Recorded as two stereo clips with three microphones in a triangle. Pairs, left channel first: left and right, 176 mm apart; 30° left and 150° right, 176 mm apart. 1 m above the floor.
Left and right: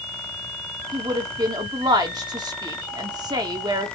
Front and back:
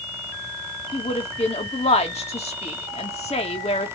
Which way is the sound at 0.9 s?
25° right.